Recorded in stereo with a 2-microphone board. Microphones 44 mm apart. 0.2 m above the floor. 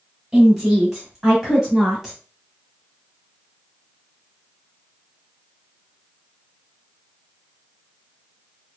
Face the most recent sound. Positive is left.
turn(degrees=-10)  # may be behind; listen again after turning